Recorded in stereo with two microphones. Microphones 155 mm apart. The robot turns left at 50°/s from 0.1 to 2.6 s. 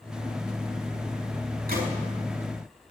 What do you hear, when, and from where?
1.7 s a gunshot: 75° right (ahead or behind), 4.5 m